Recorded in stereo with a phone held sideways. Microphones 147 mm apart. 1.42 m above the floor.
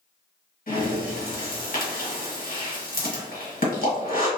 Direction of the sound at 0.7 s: 65° left (ahead or behind).